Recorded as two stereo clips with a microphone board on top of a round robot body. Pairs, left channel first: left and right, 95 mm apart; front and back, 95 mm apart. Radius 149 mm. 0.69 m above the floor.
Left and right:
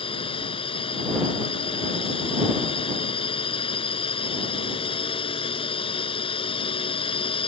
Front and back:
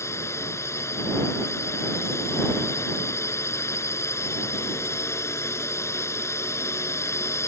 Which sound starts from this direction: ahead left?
A drone, at 0.0 s.